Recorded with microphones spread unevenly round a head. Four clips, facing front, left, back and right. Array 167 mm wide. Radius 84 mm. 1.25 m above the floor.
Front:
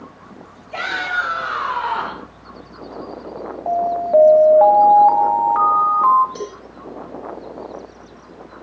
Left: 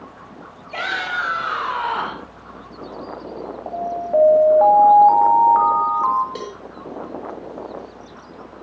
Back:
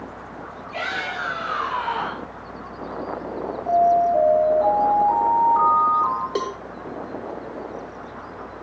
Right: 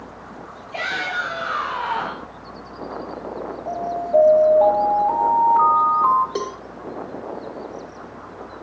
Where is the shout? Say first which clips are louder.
Left 1 dB, front 6 dB; 35° left, 4.5 m; by 2.3 s 50° left, 4.5 m.